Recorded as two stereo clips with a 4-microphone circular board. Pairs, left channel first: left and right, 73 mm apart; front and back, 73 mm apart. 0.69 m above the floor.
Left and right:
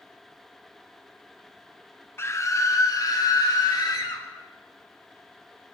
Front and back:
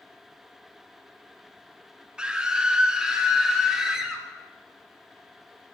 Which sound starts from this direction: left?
A scream, at 2.2 s.